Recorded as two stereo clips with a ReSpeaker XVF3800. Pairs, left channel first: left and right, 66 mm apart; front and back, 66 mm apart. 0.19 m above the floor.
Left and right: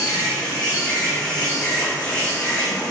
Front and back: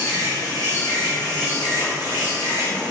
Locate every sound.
0.0 s an insect: 15° left, 6 m